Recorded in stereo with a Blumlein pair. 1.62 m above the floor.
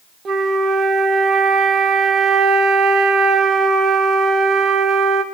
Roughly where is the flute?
Ahead right.